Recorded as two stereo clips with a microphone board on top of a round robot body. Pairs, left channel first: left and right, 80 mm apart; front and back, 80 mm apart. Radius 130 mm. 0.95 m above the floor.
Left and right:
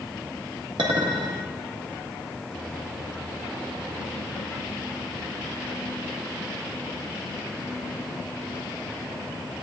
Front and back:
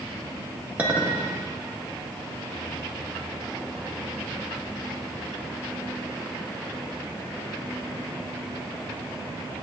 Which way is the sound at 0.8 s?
110° right.